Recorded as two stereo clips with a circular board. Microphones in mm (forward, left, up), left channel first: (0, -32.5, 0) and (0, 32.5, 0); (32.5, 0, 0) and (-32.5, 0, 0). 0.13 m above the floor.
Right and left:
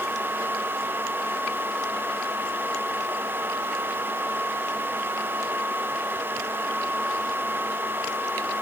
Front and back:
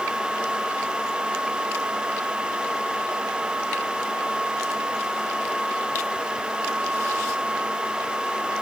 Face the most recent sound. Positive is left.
No sound to turn to.